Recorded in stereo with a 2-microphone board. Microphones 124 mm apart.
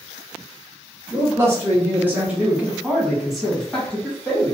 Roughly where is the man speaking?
Right.